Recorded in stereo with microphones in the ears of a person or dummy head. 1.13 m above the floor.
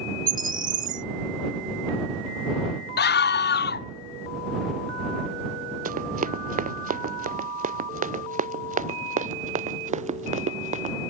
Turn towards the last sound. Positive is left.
turn(degrees=-35)  # may be behind; listen again after turning